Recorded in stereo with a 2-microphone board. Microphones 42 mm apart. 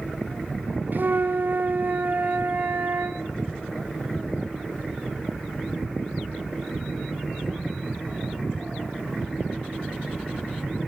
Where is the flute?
55° right (ahead or behind), 1.7 m.